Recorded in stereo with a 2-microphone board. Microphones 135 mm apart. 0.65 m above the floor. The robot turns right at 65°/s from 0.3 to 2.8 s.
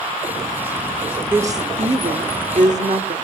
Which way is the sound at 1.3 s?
165° right.